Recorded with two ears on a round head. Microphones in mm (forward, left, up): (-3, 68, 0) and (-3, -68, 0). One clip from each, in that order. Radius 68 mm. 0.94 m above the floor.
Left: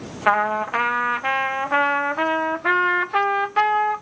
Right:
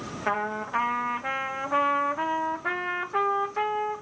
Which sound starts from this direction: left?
A trumpet, at 0.3 s.